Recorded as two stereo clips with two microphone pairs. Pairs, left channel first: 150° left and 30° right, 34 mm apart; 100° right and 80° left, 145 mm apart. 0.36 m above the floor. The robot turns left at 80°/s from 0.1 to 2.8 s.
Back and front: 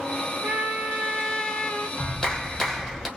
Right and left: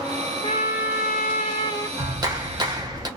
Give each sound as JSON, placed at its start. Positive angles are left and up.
{"t": 0.4, "sound": "a trumpet", "azimuth_deg": -50, "distance_m": 0.9}
{"t": 2.0, "sound": "a clap", "azimuth_deg": 125, "distance_m": 1.1}